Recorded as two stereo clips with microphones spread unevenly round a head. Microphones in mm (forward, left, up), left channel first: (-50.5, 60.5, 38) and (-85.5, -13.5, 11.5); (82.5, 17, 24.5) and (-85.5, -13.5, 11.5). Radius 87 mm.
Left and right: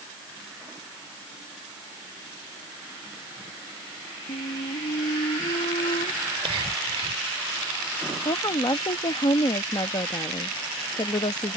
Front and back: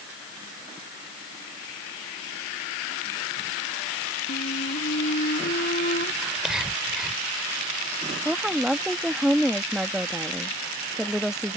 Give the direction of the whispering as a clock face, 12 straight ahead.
3 o'clock.